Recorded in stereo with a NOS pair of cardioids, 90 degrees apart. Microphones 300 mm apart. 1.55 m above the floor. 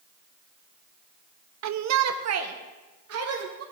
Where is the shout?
65° right, 0.8 m; by 3.6 s 50° right, 4 m.